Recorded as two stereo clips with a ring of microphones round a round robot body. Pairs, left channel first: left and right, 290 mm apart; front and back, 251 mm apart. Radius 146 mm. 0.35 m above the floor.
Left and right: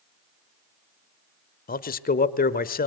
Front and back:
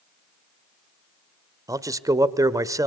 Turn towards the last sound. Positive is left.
turn(degrees=115)